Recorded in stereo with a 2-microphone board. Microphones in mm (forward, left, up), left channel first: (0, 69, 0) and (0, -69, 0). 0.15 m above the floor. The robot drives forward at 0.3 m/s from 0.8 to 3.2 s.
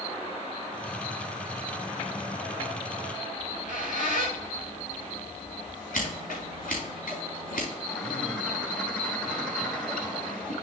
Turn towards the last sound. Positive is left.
turn(degrees=5)  # may be behind; listen again after turning